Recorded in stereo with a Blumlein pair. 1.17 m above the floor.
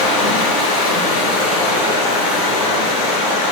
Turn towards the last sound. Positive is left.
turn(degrees=55)